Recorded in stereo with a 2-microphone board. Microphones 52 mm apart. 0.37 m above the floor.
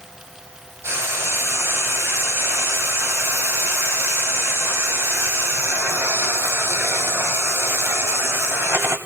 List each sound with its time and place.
0.8 s frying: 60° right (ahead or behind), 2 m